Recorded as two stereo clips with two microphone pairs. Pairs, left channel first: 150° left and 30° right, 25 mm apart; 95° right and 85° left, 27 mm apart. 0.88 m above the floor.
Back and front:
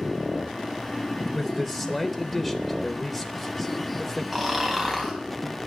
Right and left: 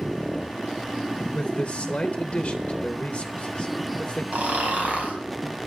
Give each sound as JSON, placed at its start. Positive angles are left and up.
{"t": 1.3, "sound": "a man speaking", "azimuth_deg": -130, "distance_m": 0.9}
{"t": 4.3, "sound": "snoring", "azimuth_deg": 60, "distance_m": 3.5}